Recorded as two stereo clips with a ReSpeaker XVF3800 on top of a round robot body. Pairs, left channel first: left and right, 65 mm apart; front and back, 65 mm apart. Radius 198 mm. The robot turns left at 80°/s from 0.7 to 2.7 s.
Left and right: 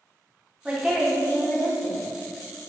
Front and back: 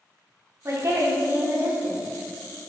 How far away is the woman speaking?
About 1.3 m.